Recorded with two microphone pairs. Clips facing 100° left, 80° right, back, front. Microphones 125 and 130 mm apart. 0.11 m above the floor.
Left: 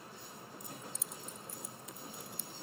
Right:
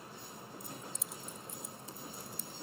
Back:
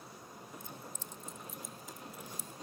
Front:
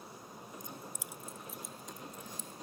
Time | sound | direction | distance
0.6 | keys jangling | 55° left | 1.0 m